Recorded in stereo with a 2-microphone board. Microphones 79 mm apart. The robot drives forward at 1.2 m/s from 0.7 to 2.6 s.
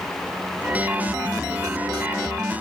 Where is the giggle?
No giggle in this recording.